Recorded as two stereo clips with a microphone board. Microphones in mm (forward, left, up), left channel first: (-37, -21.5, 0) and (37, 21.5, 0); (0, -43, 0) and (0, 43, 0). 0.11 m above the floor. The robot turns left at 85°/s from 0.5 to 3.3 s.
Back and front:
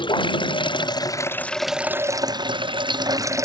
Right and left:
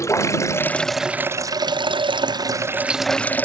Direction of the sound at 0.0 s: 140° right.